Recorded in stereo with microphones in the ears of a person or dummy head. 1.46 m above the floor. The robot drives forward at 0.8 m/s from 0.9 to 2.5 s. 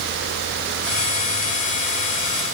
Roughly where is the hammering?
No hammering in this recording.